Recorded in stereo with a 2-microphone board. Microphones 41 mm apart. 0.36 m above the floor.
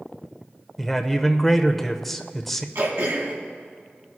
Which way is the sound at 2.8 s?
65° right (ahead or behind).